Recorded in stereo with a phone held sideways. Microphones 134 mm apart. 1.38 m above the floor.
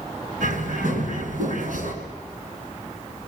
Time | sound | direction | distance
0.4 | a bird | 75° right (ahead or behind) | 4.5 m